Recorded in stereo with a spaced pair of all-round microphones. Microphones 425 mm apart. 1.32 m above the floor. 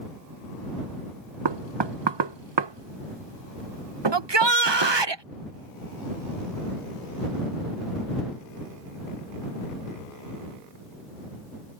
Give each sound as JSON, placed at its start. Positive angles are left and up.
{"t": 1.4, "sound": "knocking", "side_deg": -80}
{"t": 4.1, "sound": "a shout", "side_deg": -75}